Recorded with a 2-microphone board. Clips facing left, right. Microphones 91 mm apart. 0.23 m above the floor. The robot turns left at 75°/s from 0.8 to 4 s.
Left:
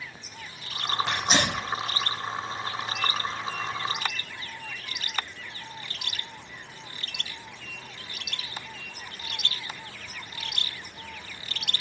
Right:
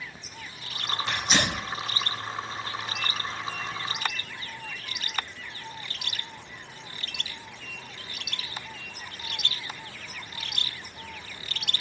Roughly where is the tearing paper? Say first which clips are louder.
Even; left.